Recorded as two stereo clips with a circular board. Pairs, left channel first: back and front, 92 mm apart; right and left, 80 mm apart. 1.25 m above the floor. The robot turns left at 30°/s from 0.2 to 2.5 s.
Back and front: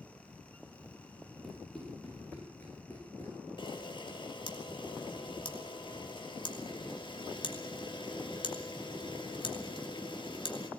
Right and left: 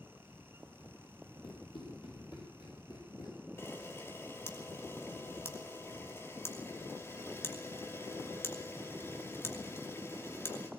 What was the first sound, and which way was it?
Running footsteps, 90° right.